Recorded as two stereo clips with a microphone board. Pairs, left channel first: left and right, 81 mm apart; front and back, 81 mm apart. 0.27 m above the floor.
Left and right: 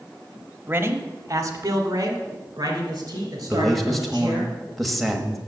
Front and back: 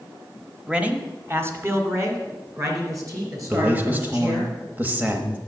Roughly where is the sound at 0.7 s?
Behind right.